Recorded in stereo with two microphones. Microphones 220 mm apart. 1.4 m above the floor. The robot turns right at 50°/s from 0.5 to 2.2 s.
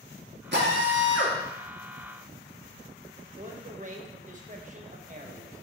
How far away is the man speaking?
About 1.2 m.